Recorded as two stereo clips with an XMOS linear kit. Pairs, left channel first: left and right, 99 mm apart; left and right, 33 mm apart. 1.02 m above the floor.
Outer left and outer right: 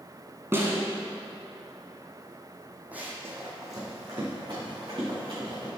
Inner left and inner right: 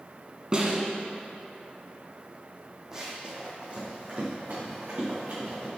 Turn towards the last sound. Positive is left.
turn(degrees=-50)  # may be behind; listen again after turning